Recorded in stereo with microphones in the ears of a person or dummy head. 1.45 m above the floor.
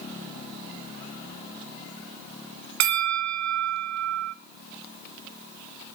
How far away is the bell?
About 0.6 m.